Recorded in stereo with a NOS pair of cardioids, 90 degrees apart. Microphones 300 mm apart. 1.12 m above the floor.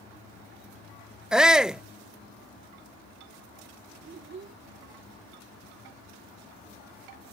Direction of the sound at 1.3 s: Straight ahead.